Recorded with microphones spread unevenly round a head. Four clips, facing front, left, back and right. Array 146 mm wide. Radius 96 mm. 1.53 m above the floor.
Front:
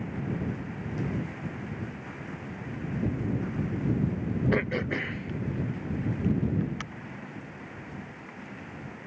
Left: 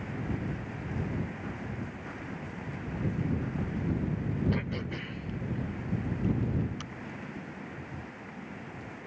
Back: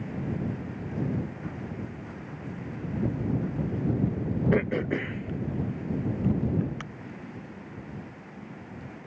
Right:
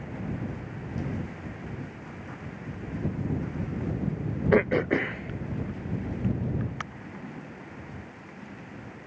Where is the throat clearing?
105° right.